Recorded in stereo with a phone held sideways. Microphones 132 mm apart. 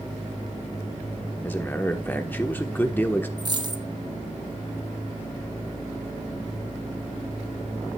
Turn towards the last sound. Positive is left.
turn(degrees=-30)  # may be behind; listen again after turning